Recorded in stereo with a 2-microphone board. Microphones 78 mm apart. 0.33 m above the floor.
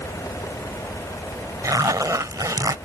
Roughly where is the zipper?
Right.